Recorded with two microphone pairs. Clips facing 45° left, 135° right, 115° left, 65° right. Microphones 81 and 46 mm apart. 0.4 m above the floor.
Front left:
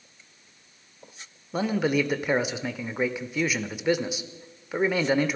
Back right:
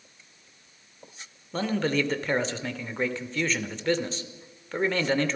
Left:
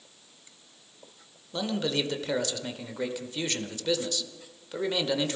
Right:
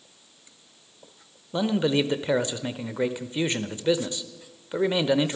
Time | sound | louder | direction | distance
1.5 | a man speaking | front left 2 dB, right 6 dB | 25° right | 1.0 m